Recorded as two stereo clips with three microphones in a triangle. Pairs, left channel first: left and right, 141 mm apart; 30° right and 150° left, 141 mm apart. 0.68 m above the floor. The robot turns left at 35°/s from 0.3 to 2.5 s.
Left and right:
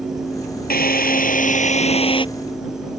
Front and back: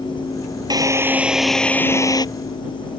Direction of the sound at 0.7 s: 85° left.